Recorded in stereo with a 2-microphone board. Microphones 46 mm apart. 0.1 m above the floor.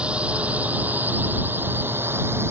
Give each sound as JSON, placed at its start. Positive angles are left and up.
{"t": 0.0, "sound": "a drone", "side_deg": -25}